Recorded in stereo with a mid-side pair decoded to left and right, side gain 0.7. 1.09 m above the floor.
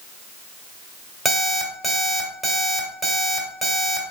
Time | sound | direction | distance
1.2 | an alarm clock | 15° left | 1.7 m